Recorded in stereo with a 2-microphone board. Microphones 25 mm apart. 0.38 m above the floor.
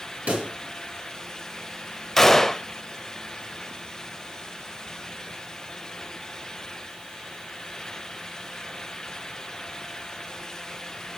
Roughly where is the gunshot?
Centre.